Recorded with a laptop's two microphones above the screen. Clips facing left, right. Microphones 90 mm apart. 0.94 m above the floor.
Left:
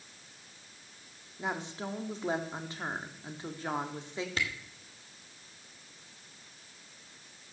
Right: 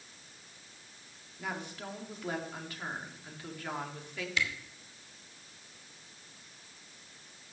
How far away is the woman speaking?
About 2.5 m.